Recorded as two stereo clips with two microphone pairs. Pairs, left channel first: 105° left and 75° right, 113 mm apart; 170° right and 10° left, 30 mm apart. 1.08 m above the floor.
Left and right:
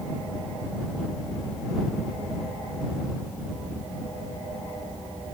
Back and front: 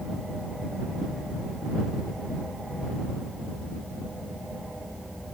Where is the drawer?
I don't hear a drawer.